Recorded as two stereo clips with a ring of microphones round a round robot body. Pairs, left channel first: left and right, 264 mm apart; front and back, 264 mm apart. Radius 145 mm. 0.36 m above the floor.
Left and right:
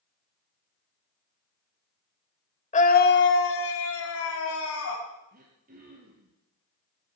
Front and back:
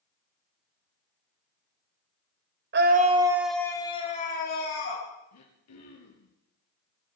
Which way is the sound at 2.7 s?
145° left.